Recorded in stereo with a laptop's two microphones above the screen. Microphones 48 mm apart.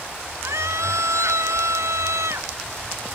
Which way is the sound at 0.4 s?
85° right.